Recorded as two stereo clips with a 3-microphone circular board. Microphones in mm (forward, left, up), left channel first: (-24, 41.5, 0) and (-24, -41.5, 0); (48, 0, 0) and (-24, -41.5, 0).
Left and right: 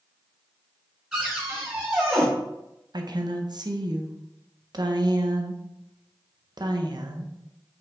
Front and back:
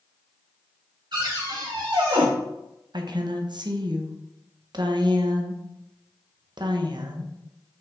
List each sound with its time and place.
1.1 s a cupboard door: 170° right, 1.9 m
2.9 s a woman speaking: 120° right, 0.6 m